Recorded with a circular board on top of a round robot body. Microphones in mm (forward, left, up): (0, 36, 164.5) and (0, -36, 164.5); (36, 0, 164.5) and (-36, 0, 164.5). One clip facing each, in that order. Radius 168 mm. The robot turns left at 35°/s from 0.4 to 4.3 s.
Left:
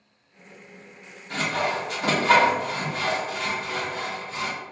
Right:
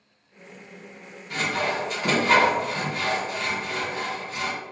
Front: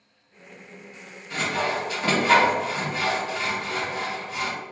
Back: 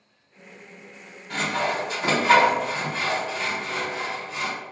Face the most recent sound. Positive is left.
turn(degrees=30)